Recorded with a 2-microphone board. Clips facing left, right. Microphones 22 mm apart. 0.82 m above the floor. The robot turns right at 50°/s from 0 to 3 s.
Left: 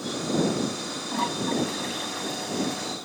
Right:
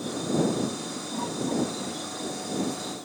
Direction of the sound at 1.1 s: 55° left.